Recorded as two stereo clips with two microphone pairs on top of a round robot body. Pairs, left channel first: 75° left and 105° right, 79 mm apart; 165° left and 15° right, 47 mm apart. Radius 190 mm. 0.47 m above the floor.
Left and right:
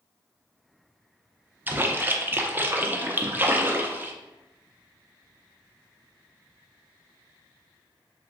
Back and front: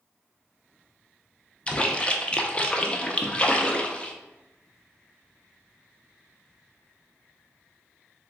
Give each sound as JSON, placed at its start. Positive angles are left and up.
{"t": 1.7, "sound": "a splash", "azimuth_deg": -155, "distance_m": 0.6}